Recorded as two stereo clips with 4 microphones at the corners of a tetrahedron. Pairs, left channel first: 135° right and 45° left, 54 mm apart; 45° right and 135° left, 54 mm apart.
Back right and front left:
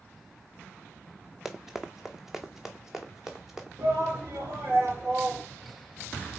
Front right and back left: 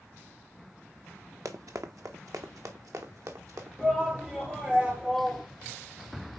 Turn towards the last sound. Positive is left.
turn(degrees=60)